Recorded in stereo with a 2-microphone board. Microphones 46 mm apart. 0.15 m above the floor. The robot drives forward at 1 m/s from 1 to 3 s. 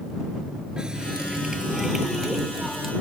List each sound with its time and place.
0.8 s a running tap: 20° right (ahead or behind); by 2.9 s 10° right (ahead or behind)